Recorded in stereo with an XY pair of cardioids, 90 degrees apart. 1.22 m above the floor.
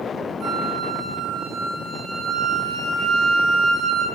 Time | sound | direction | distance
0.4 | a flute | 65° right | 4.5 m